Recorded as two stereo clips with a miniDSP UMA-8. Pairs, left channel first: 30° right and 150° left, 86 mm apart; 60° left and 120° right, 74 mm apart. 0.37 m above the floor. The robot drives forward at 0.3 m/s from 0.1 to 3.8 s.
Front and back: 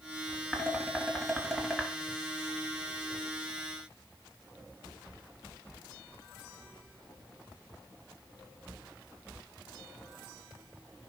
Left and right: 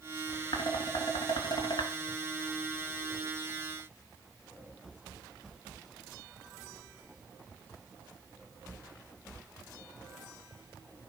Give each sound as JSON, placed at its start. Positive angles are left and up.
{"t": 0.5, "sound": "dishes clattering", "azimuth_deg": 50, "distance_m": 3.5}